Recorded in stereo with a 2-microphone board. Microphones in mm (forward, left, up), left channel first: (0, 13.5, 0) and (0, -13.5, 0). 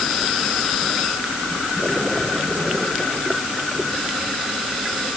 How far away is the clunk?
No clunk in this recording.